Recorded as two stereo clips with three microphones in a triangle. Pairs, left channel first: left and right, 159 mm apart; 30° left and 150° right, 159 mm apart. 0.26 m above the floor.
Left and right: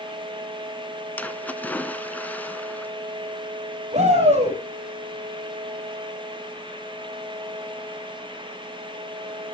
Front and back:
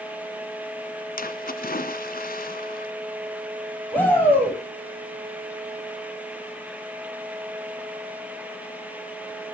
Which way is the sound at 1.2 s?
10° left.